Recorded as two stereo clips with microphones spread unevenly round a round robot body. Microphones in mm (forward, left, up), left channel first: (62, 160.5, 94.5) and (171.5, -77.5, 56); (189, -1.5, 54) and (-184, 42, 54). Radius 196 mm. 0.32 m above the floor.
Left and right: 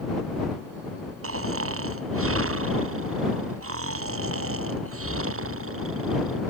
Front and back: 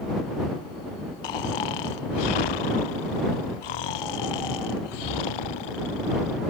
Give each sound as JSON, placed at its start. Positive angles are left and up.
{"t": 1.2, "sound": "snoring", "azimuth_deg": -30}